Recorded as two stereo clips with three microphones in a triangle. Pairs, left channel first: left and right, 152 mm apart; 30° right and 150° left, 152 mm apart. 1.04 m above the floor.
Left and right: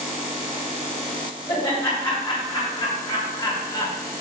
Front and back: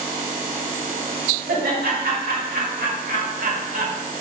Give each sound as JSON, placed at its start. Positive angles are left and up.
{"t": 1.5, "sound": "laughter", "azimuth_deg": 150, "distance_m": 3.0}